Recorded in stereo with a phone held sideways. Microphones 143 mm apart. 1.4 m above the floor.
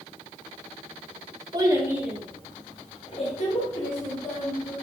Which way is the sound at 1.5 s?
30° right (ahead or behind).